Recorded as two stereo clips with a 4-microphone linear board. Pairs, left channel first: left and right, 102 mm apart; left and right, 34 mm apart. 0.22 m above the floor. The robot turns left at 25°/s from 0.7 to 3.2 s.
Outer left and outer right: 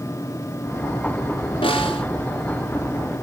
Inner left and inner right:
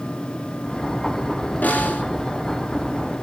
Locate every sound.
1.6 s a snare drum: 60° left (ahead or behind), 3 m; by 2.0 s 65° left (ahead or behind), 3 m